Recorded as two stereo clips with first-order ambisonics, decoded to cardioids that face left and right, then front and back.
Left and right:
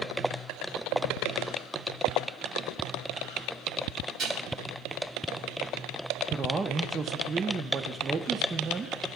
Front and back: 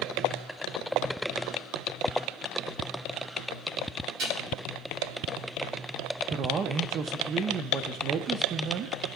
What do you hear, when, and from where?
4.2 s dishes clattering: 145° right, 8 m
6.3 s a man speaking: 150° right, 0.7 m